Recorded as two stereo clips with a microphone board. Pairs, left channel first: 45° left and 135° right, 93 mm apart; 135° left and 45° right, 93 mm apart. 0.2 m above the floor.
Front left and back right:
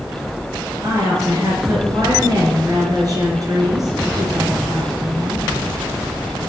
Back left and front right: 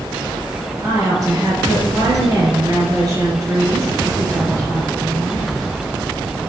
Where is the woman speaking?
95° right, 3.5 m.